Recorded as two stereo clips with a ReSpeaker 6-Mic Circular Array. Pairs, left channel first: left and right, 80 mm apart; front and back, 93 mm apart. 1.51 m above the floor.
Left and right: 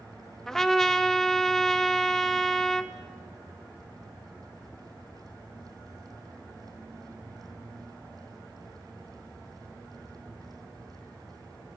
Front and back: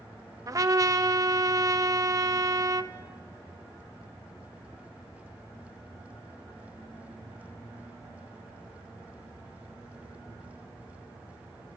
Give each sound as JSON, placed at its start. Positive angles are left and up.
{"t": 0.5, "sound": "a trumpet", "azimuth_deg": 170, "distance_m": 0.8}